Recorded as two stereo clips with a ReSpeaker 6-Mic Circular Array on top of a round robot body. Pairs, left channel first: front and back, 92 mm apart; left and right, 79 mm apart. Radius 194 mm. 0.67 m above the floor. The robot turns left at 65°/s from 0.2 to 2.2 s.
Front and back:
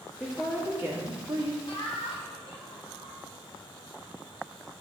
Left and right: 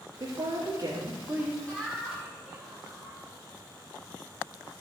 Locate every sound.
0.2 s a woman speaking: 85° right, 2 m; by 1.6 s 175° right, 2 m
1.7 s laughter: 20° left, 2.5 m; by 3.1 s 15° right, 2.5 m